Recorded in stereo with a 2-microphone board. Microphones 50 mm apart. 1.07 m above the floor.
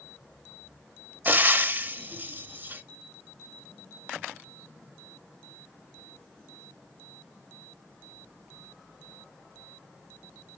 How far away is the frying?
About 0.7 m.